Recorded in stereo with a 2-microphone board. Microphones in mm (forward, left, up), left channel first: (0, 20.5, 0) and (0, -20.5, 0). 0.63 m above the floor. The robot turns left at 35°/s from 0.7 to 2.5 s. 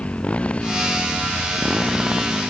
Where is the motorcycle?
30° left; by 2.5 s 35° right.